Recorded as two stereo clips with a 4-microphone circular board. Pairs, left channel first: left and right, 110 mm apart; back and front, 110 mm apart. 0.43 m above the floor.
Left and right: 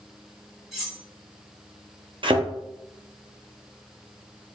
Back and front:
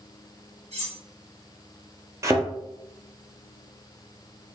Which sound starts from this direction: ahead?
Cutlery clinking, at 0.7 s.